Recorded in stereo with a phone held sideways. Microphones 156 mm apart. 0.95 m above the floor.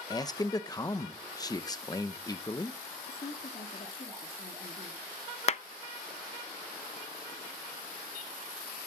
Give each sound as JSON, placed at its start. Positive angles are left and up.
{"t": 0.1, "sound": "a man speaking", "side_deg": 25, "distance_m": 0.8}
{"t": 3.1, "sound": "a woman speaking", "side_deg": 55, "distance_m": 2.0}
{"t": 5.5, "sound": "a clap", "side_deg": 45, "distance_m": 0.5}